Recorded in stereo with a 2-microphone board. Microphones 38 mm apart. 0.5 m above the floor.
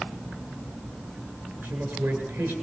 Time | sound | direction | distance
1.6 | a man speaking | 80° right | 9.5 m